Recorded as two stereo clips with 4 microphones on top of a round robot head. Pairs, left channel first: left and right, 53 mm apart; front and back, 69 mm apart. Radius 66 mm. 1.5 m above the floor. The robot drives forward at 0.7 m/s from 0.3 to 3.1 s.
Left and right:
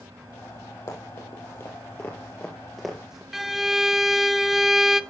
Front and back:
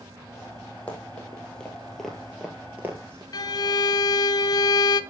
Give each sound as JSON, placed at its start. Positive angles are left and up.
{"t": 0.9, "sound": "running footsteps", "azimuth_deg": 65, "distance_m": 2.5}
{"t": 3.3, "sound": "a violin", "azimuth_deg": -5, "distance_m": 0.6}